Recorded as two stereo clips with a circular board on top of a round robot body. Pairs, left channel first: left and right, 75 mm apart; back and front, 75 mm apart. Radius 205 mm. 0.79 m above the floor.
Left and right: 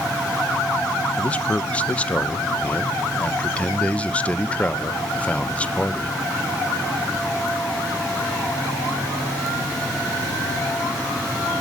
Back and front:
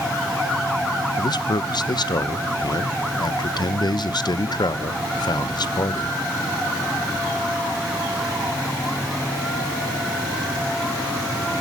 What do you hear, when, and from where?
1.2 s a man speaking: 160° left, 0.6 m